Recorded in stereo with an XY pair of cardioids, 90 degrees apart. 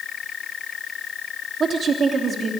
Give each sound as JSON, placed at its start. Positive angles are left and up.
{"t": 1.6, "sound": "a woman speaking", "azimuth_deg": -50, "distance_m": 3.0}